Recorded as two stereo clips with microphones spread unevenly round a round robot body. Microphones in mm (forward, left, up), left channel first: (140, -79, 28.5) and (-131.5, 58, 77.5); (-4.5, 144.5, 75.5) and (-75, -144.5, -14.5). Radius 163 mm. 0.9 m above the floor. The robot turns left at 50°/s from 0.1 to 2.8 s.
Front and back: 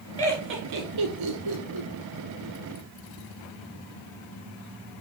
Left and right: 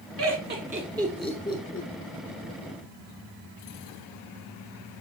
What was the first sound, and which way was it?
Laughter, 135° right.